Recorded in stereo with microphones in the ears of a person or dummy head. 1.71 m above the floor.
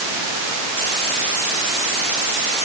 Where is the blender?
I don't hear a blender.